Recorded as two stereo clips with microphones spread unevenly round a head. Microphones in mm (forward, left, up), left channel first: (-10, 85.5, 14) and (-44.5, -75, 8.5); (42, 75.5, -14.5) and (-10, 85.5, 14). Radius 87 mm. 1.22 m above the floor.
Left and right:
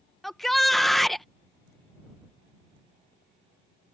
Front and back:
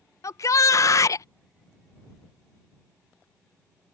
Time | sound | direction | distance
0.2 | a shout | 10° right | ?